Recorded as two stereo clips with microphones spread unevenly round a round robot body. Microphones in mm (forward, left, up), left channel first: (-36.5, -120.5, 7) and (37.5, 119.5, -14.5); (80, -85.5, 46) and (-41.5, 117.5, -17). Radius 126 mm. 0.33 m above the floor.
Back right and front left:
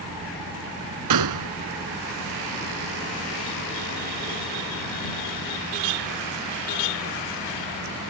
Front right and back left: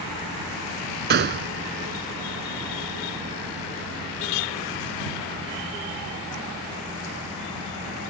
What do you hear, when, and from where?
1.1 s a gunshot: 75° left